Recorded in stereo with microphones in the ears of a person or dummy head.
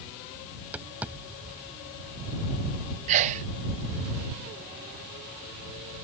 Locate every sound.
0.5 s tapping: 10° right (ahead or behind)
3.1 s a sneeze: 35° right (ahead or behind)